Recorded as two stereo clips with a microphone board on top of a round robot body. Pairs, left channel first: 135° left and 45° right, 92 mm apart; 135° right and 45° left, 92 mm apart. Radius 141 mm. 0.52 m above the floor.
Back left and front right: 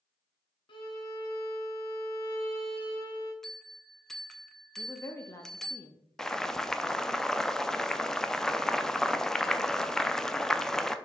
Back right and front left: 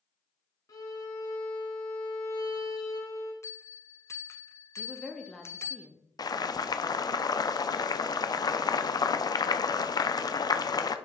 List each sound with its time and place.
0.7 s a violin: 170° left, 1.1 m
3.4 s a bell: 145° right, 0.9 m
4.8 s a woman speaking: 145° left, 0.9 m
6.2 s boiling: 140° right, 0.6 m